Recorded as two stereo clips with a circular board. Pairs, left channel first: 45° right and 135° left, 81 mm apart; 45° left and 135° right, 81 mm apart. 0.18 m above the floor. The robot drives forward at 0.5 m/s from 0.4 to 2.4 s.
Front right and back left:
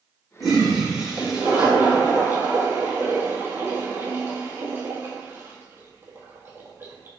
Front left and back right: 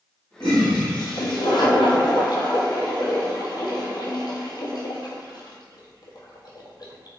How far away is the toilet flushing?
About 1.8 m.